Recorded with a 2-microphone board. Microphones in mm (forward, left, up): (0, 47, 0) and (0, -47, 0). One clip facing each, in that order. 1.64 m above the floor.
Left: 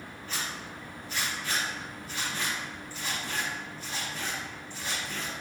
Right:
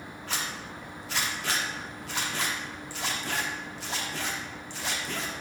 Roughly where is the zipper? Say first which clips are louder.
Right 2 dB; right.